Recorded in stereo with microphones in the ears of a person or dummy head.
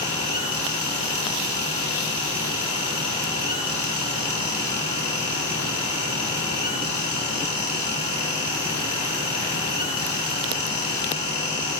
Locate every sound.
0.0 s a fan: 45° left (ahead or behind), 2 m